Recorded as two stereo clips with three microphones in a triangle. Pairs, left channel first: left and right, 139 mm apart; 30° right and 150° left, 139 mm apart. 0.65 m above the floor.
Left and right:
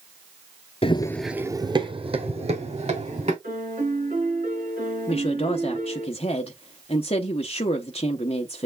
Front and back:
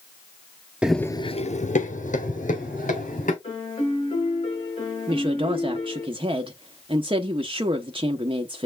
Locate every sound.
0.8 s running footsteps: 70° left, 0.8 m; by 3.3 s 50° right, 3.5 m
3.4 s a piano: 80° right, 5 m
5.1 s a woman speaking: 115° left, 0.8 m